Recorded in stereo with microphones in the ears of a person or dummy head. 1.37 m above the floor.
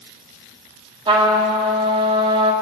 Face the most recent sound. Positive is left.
turn(degrees=-25)  # may be behind; listen again after turning